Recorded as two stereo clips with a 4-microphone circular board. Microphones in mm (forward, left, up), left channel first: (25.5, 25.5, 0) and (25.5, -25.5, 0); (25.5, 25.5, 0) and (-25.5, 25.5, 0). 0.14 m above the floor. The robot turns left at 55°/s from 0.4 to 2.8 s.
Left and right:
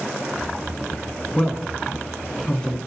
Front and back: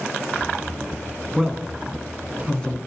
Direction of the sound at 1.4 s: 115° left.